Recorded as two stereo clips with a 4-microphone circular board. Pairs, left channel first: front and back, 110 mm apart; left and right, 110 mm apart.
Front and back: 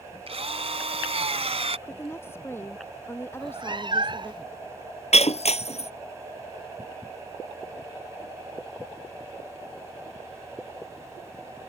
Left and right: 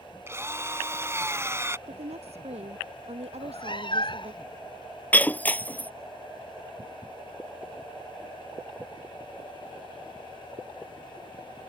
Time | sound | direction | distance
0.3 | a drill | 155° right | ?
1.9 | a woman speaking | 70° right | ?
3.3 | a cat meowing | 135° left | ?
5.1 | breaking glass | 15° left | ?